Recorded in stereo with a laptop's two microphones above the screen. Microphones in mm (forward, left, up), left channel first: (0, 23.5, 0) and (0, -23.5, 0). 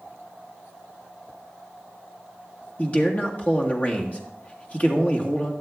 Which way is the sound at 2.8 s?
30° left (ahead or behind).